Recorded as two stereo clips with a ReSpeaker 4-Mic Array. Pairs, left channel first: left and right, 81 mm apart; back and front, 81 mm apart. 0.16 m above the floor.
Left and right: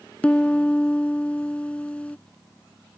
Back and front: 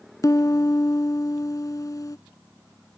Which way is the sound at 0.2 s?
160° left.